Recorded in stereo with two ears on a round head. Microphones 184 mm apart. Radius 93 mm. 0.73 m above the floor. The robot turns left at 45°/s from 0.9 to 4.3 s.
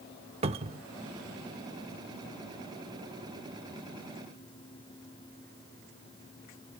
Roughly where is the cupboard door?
Right.